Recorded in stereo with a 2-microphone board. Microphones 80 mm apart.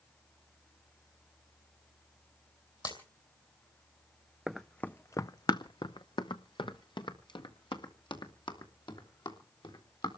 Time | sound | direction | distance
2.9 | breaking glass | 55° left (ahead or behind) | 2.5 m
4.5 | running footsteps | centre (ahead or behind) | 0.6 m